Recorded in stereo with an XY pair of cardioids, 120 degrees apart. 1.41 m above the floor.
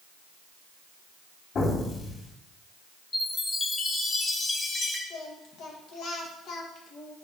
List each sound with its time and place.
1.6 s an explosion: 55° left, 3 m
3.1 s a chime: 25° left, 1.8 m
5.1 s singing: 70° left, 1.7 m